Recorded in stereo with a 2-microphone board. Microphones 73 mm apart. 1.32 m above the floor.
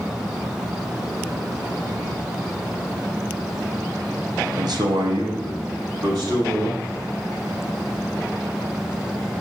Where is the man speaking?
65° right (ahead or behind), 0.8 m; by 7.0 s 85° right, 3 m.